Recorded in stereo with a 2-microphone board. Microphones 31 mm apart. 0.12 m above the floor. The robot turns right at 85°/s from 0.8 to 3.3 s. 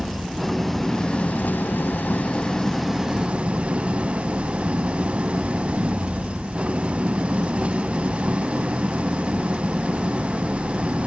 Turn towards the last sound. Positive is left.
turn(degrees=-140)